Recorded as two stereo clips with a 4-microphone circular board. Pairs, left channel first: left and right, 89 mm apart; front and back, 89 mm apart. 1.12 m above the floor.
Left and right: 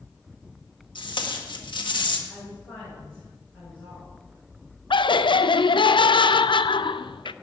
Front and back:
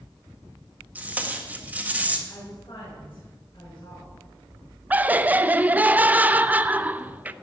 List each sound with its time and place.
0.9 s tape being pulled: 110° left, 1.7 m
2.3 s a woman speaking: 15° left, 7 m
4.9 s laughter: 110° left, 0.6 m